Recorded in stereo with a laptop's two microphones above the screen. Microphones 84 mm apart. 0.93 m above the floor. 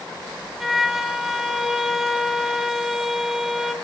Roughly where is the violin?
Centre.